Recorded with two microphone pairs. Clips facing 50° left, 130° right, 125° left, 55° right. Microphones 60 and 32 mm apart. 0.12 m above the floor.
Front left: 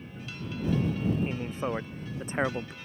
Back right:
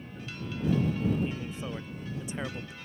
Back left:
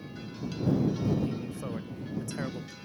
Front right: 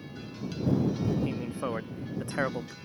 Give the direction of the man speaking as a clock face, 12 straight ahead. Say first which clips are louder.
Front left 4 dB, front right 3 dB; 12 o'clock.